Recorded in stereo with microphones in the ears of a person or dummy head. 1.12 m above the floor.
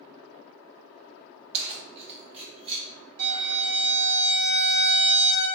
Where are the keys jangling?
35° right (ahead or behind), 0.5 m; by 2.9 s 30° right (ahead or behind), 1.5 m.